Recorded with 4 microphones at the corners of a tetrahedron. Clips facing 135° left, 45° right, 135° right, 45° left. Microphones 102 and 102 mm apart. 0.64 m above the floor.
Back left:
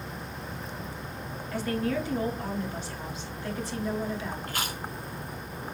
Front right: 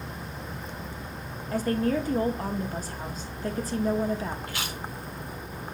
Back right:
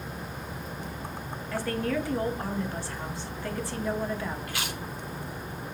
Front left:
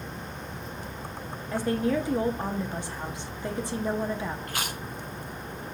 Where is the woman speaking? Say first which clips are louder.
Front right 4 dB, front left 3 dB; 20° right, 0.7 m.